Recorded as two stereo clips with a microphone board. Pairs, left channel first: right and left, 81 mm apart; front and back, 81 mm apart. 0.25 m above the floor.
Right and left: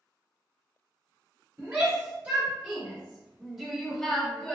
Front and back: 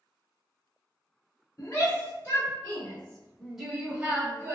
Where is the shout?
35° left, 1.5 m; by 4.5 s 160° right, 1.1 m.